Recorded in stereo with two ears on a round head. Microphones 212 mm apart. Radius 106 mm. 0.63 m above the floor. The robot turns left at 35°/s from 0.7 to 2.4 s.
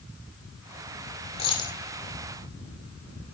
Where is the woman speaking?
No woman speaking in this recording.